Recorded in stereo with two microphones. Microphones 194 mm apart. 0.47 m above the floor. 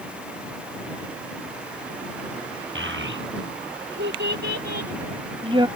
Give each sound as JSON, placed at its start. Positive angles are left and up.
{"t": 2.8, "sound": "a child speaking", "side_deg": -85}